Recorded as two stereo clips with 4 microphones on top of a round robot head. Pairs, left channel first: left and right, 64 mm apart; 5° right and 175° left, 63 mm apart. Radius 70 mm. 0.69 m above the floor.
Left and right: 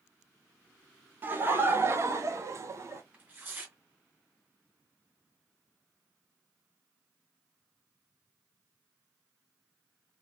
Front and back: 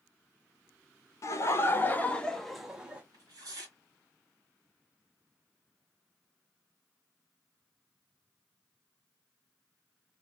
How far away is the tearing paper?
About 1.9 m.